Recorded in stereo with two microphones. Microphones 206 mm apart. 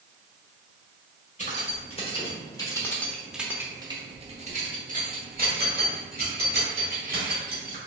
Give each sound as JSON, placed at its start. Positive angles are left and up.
{"t": 1.4, "sound": "keys jangling", "side_deg": 40, "distance_m": 1.3}